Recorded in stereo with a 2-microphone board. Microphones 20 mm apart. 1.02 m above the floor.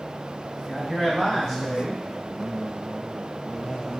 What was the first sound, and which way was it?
A man speaking, 30° left (ahead or behind).